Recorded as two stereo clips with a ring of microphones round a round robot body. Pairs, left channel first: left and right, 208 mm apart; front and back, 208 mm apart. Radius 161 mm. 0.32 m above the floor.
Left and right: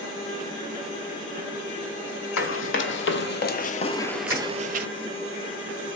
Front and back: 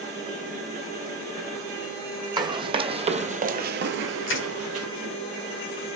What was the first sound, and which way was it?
Running footsteps, 110° left.